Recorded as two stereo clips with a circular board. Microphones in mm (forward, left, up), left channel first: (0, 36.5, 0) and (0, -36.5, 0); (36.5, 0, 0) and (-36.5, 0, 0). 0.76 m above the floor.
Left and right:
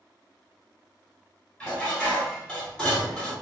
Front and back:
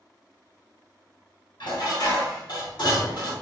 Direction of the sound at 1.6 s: 15° left.